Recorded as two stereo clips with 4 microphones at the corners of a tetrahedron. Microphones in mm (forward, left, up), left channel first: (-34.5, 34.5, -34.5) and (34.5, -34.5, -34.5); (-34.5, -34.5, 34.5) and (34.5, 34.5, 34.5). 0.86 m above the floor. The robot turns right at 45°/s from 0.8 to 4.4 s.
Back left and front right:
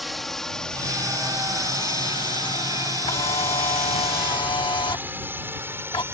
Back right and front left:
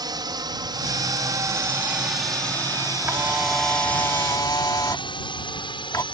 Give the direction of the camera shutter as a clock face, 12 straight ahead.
8 o'clock.